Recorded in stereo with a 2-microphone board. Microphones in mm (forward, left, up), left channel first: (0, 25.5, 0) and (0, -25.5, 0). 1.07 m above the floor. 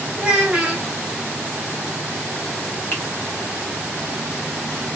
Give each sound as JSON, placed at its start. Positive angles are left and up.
{"t": 0.2, "sound": "a child speaking", "side_deg": -10, "distance_m": 1.5}
{"t": 2.9, "sound": "a finger snap", "side_deg": 45, "distance_m": 1.6}